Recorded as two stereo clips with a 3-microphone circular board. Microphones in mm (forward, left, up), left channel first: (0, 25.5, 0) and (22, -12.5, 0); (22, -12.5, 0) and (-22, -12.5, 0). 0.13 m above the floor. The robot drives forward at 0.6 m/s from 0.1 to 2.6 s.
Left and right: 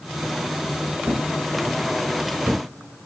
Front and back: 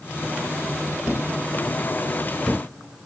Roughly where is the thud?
Ahead right.